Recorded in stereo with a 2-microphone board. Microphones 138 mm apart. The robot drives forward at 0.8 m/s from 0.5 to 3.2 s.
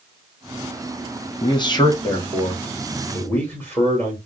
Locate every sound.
1.4 s a man speaking: 40° left (ahead or behind), 0.8 m; by 4.2 s 15° left (ahead or behind), 2 m